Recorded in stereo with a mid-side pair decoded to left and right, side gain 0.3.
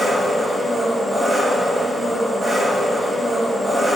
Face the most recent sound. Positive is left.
turn(degrees=-45)